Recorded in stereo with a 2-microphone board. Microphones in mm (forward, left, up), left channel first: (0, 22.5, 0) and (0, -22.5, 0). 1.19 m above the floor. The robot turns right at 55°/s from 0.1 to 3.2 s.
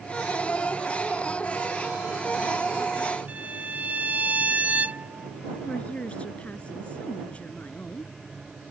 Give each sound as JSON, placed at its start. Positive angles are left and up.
{"t": 3.3, "sound": "a violin", "side_deg": -35}
{"t": 5.6, "sound": "a woman speaking", "side_deg": 30}